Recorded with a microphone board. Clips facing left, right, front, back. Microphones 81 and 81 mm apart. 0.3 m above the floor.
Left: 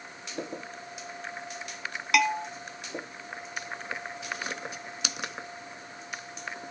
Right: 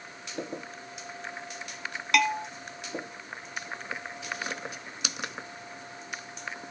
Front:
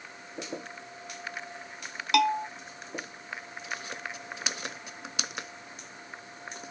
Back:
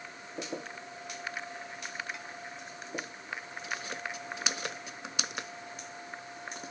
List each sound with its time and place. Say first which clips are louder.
2.1 s a bell: even, front 19 dB; straight ahead